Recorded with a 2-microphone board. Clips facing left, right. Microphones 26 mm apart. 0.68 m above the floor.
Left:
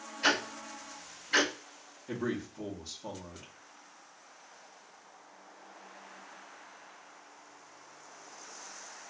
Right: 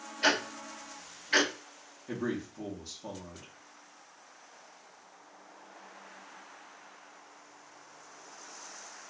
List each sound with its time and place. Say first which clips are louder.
0.2 s ticking: right 1 dB; 70° right (ahead or behind), 1.4 m
2.1 s a man speaking: even; 20° right (ahead or behind), 0.8 m